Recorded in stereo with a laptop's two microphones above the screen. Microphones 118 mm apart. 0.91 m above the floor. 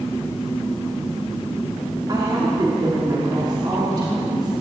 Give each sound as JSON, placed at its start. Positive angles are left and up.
{"t": 2.1, "sound": "a woman speaking", "side_deg": -35, "distance_m": 2.5}